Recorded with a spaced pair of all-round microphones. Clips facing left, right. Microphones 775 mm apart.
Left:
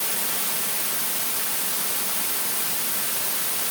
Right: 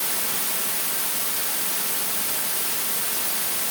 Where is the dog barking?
I don't hear a dog barking.